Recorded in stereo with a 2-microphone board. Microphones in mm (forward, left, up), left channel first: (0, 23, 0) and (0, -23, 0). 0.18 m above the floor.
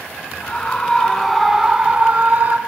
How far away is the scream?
About 1.6 m.